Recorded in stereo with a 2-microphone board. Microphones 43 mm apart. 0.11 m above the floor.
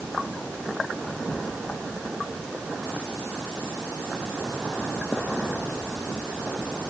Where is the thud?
No thud in this recording.